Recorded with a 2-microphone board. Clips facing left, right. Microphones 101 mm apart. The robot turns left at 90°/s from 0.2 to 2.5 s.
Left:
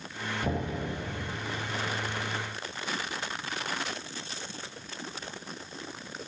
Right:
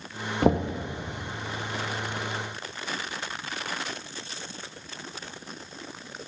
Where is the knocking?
90° right, 1.2 m; by 0.8 s 125° right, 1.2 m.